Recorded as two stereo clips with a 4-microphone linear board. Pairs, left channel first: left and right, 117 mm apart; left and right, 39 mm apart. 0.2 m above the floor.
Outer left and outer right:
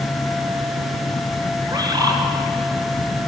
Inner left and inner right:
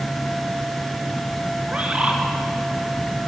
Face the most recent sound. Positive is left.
turn(degrees=-35)  # may be behind; listen again after turning